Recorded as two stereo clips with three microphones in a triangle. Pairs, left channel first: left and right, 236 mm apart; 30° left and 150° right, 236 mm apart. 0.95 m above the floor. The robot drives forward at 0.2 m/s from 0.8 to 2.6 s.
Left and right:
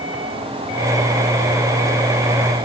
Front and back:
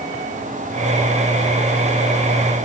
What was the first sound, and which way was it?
Only background noise.